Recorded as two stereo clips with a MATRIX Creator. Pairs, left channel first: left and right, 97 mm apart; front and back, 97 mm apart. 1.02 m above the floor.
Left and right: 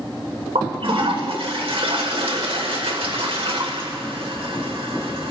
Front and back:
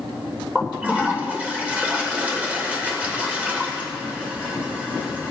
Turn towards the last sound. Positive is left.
turn(degrees=-105)